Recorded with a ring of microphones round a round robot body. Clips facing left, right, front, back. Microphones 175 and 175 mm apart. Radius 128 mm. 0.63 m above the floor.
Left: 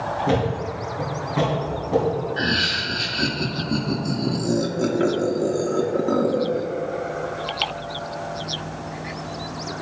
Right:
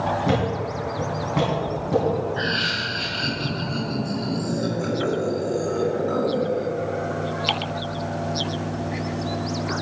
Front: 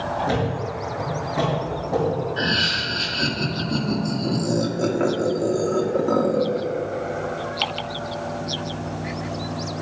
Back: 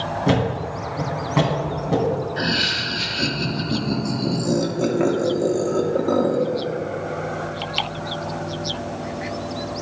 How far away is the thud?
About 3 m.